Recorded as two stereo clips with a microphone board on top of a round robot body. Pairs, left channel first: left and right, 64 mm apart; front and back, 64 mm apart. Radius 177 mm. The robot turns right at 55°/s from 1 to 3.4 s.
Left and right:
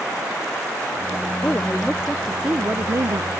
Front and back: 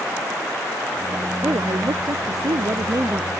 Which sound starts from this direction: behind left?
A woman speaking, at 1.4 s.